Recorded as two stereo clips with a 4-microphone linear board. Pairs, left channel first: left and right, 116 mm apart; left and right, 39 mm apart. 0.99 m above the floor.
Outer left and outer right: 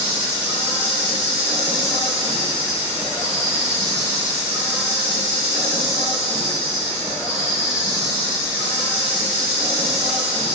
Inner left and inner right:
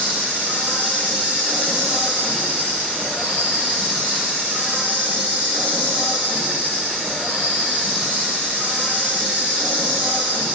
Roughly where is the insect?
Right.